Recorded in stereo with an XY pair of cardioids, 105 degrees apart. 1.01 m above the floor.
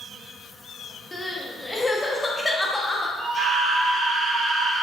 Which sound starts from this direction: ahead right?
A scream, at 3.2 s.